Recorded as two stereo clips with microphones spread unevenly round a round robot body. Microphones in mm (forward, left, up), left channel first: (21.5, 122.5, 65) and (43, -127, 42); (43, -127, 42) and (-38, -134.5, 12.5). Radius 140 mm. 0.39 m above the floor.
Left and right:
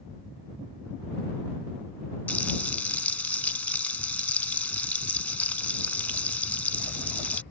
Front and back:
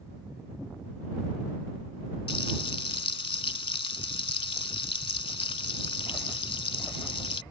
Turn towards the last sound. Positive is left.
turn(degrees=10)